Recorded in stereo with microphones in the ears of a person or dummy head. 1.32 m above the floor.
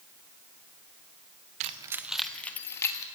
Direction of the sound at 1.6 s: 40° right (ahead or behind).